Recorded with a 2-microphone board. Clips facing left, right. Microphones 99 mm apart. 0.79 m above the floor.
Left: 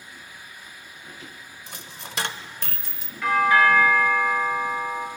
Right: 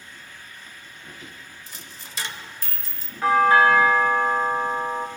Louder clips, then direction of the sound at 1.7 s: Left 3 dB; 60° left (ahead or behind).